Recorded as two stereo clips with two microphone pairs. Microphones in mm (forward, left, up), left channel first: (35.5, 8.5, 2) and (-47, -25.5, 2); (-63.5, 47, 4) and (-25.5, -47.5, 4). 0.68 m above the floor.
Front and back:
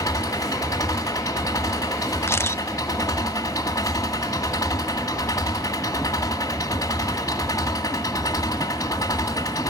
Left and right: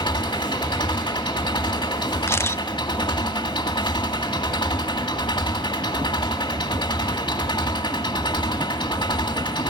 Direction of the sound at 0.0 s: 75° left.